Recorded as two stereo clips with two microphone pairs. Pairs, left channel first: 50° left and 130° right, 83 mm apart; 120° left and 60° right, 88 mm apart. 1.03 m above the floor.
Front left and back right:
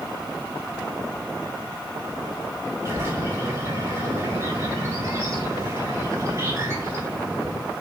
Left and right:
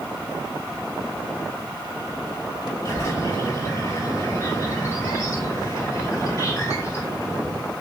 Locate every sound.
2.9 s a bird: 170° left, 4 m